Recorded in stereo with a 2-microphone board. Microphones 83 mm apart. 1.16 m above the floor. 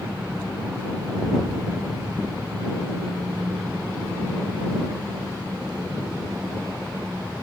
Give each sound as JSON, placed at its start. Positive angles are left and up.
{"t": 0.0, "sound": "an engine running", "side_deg": -30}